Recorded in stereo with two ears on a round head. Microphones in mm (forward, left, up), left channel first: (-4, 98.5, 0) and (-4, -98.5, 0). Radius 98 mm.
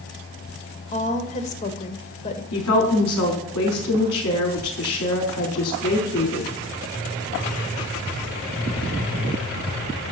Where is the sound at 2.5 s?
80° left, 5 m.